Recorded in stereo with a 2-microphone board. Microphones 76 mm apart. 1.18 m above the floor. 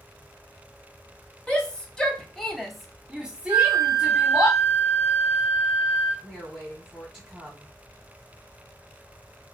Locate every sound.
1.5 s a shout: 15° left (ahead or behind), 1.1 m; by 4.5 s 20° right (ahead or behind), 1.0 m
3.5 s a flute: 45° right (ahead or behind), 1.9 m
6.2 s a woman speaking: 5° left (ahead or behind), 1.4 m